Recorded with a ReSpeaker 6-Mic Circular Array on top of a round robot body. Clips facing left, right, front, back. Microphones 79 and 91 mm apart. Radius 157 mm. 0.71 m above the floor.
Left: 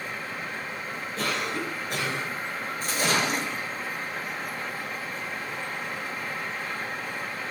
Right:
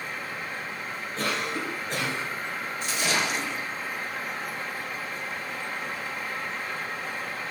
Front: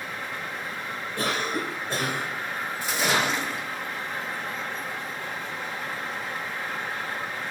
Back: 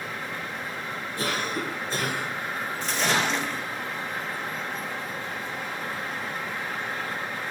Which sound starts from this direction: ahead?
A cough, at 1.2 s.